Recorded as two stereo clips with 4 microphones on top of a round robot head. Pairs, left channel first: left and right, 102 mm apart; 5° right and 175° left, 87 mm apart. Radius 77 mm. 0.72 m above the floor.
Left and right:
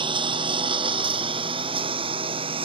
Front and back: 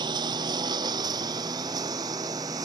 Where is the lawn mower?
130° right; by 2.6 s 125° right.